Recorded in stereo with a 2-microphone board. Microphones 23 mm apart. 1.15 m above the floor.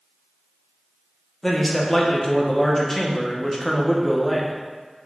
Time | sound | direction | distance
1.4 | a man speaking | 25° left (ahead or behind) | 0.5 m